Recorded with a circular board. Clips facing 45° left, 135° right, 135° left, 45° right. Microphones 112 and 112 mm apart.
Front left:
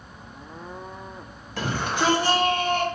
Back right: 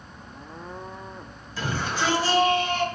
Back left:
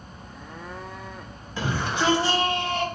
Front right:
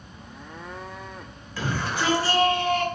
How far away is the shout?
About 3.5 m.